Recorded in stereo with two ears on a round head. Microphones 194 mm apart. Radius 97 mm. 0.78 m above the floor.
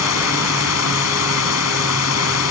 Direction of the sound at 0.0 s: 80° left.